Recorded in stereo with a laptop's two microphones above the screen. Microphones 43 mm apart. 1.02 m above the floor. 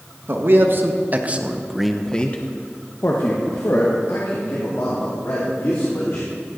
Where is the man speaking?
60° right (ahead or behind), 1.5 m; by 6.3 s 80° left, 3.5 m.